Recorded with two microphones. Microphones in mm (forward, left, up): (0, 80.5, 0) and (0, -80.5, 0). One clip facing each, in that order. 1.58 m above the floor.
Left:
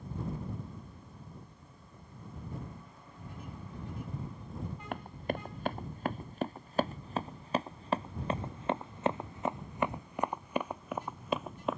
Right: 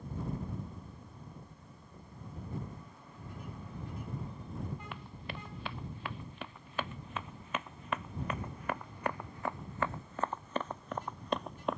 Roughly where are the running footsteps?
Left.